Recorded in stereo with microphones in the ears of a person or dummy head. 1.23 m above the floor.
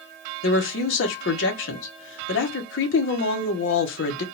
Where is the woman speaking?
65° left (ahead or behind), 1.3 m.